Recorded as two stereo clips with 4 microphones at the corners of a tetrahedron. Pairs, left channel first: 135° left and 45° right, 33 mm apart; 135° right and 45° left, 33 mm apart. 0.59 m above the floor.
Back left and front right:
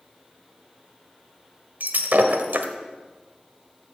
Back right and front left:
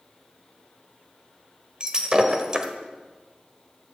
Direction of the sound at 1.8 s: 20° right.